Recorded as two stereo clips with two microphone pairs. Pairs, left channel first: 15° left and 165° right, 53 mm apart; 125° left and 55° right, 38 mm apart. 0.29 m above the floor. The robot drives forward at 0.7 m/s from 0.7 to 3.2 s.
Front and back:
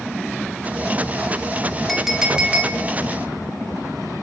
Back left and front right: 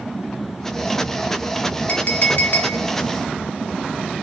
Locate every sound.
1.9 s a clink: 100° left, 0.8 m; by 2.8 s 145° left, 1.1 m